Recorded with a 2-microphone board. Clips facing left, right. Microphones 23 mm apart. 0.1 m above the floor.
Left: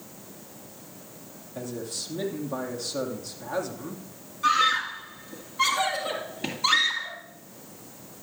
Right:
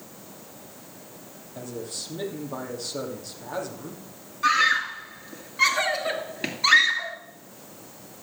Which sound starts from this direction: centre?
A man speaking, at 1.6 s.